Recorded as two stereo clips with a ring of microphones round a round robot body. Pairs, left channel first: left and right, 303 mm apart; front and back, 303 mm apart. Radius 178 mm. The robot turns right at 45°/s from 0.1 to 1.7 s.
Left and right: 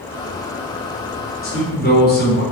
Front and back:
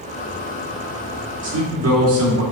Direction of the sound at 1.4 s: 135° left.